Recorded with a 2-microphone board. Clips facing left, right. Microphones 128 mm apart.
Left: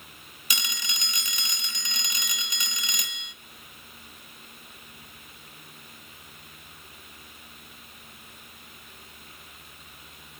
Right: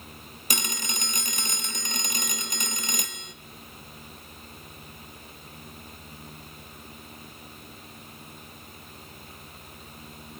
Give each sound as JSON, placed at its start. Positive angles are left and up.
{"t": 0.5, "sound": "a phone ringing", "side_deg": -45, "distance_m": 0.7}